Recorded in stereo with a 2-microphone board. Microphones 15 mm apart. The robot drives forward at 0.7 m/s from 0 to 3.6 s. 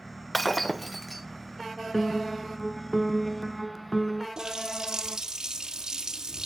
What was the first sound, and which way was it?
Breaking glass, 10° left (ahead or behind).